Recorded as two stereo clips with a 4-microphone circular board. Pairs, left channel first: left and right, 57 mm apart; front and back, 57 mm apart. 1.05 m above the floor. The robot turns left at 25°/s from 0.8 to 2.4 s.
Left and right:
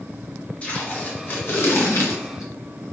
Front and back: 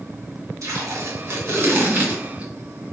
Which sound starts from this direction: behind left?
Tape being pulled, at 0.6 s.